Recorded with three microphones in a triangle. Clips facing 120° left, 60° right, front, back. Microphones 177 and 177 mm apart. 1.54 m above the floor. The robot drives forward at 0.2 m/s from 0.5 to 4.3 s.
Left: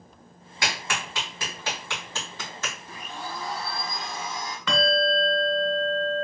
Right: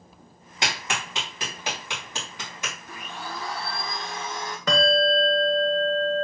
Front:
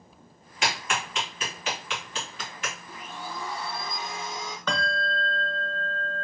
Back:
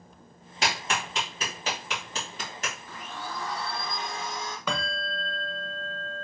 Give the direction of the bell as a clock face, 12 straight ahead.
3 o'clock.